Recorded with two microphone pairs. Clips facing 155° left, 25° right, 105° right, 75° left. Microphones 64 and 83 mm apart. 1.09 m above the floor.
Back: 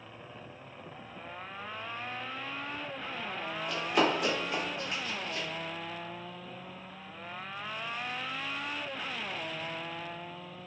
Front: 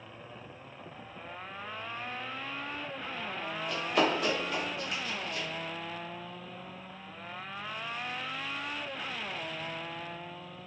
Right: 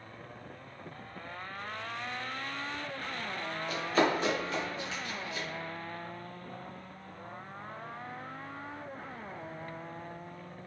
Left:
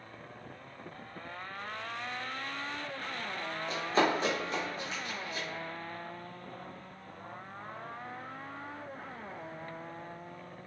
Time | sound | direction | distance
3.7 | running footsteps | 65° left | 1.2 m